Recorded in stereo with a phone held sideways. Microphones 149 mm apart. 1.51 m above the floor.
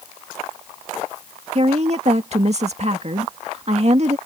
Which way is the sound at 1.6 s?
45° right (ahead or behind).